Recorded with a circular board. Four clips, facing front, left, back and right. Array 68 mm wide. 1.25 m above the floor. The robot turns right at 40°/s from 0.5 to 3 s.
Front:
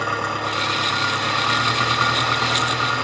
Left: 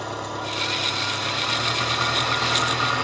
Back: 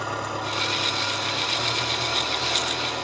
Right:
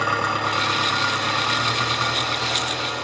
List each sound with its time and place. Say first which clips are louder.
0.0 s an engine running: right 8 dB, front 6 dB; 55° right, 6 m; by 3.0 s 45° left, 6 m